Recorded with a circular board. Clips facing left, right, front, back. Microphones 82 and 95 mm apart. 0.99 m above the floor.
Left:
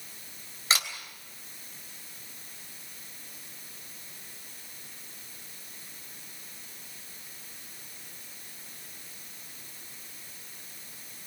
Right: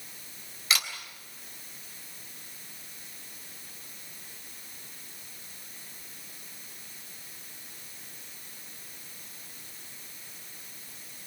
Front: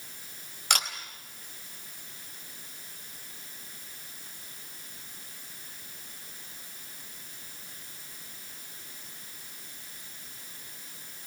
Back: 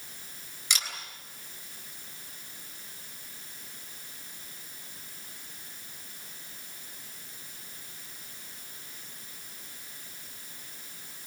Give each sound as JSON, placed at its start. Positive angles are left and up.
{"t": 0.7, "sound": "a camera shutter", "azimuth_deg": 30, "distance_m": 3.5}